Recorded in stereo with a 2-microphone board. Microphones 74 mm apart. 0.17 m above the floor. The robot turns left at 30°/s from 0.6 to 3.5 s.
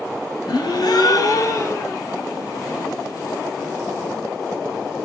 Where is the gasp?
75° left, 0.6 m; by 2.0 s 35° left, 0.6 m.